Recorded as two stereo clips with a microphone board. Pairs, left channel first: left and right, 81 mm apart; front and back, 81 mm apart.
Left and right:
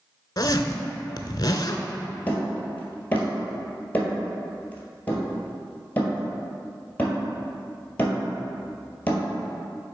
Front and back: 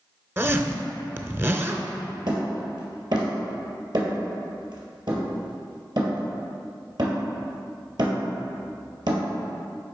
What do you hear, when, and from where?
0.4 s a zipper: 120° left, 0.6 m
2.3 s hammering: 155° left, 1.9 m